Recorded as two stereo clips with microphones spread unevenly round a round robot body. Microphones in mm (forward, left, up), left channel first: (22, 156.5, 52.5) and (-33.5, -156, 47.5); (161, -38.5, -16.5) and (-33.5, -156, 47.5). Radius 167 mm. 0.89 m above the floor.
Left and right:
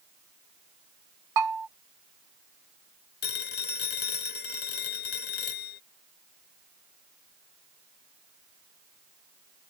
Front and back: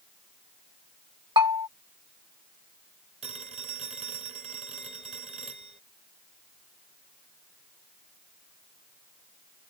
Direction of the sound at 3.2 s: 140° left.